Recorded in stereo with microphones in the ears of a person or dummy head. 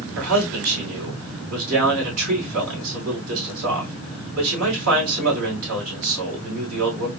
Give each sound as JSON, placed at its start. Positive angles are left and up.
{"t": 0.1, "sound": "a man speaking", "side_deg": -80, "distance_m": 2.5}